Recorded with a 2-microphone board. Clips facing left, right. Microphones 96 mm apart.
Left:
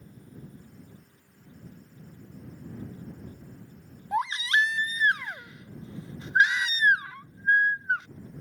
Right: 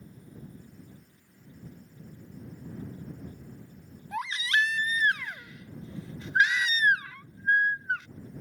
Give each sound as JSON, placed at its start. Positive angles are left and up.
{"t": 4.1, "sound": "a baby crying", "side_deg": 30}